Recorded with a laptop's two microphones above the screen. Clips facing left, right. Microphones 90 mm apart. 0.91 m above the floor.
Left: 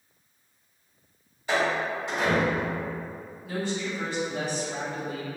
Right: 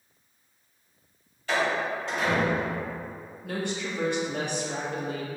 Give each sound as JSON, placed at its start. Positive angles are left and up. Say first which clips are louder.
{"t": 1.5, "sound": "a door slam", "louder": "left 1 dB", "side_deg": 15, "distance_m": 1.6}
{"t": 3.4, "sound": "a woman speaking", "louder": "left 1 dB", "side_deg": -65, "distance_m": 0.6}